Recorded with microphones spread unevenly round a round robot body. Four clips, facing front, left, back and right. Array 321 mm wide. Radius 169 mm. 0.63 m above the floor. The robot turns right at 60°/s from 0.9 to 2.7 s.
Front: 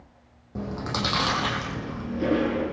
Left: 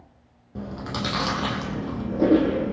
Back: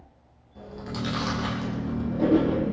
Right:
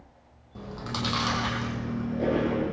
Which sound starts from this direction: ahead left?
Chewing, at 0.6 s.